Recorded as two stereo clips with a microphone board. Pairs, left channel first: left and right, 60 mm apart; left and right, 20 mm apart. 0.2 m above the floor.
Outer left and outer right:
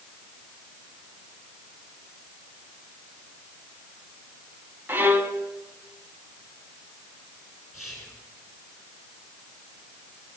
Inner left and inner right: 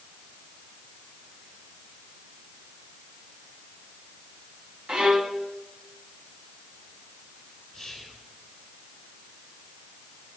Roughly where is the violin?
Right.